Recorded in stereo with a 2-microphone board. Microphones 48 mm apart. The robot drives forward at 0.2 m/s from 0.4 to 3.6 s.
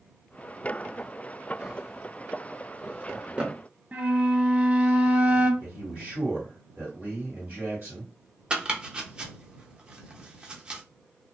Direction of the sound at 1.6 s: 20° right (ahead or behind).